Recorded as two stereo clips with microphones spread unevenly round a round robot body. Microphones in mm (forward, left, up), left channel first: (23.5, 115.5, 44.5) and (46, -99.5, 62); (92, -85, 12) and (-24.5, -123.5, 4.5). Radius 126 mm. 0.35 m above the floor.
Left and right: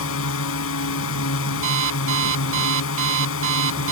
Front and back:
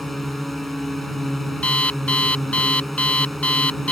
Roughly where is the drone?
Left.